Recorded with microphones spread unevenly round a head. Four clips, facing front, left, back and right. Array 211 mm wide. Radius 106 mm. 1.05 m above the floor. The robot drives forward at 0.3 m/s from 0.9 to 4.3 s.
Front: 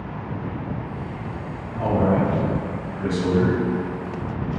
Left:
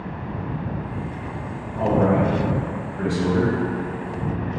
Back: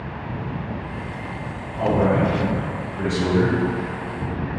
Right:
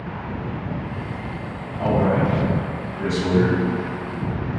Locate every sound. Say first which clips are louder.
1.8 s a man speaking: left 1 dB, back 1 dB; 135° left, 0.8 m; by 3.6 s 155° left, 1.2 m